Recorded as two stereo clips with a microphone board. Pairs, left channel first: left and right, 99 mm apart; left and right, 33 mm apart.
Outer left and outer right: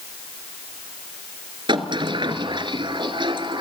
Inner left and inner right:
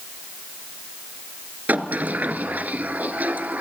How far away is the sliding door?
About 1.3 m.